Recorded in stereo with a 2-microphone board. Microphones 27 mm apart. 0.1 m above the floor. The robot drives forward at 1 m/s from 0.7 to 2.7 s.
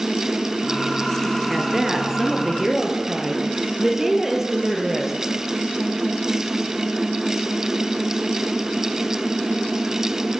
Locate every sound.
1.5 s a woman speaking: 10° right (ahead or behind), 2 m